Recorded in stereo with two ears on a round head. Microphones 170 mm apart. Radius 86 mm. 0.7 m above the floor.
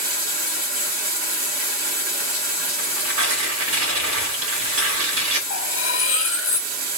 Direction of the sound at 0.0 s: 45° right (ahead or behind).